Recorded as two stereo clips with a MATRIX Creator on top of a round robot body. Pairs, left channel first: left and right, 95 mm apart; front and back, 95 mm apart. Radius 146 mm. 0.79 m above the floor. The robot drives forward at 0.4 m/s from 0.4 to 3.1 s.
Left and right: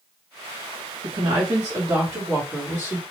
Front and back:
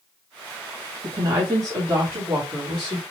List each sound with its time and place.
1.0 s a woman speaking: 135° right, 1.0 m; by 3.0 s 155° right, 1.5 m